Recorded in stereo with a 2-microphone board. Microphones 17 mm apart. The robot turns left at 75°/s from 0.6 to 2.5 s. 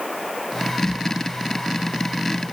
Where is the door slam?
No door slam in this recording.